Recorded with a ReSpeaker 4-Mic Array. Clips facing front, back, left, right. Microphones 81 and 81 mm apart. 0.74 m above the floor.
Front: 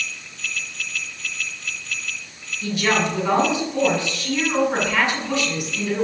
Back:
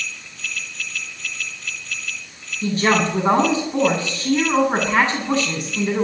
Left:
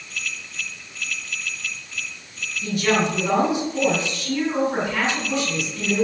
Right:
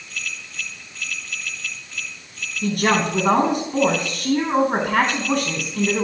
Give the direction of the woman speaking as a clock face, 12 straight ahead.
4 o'clock.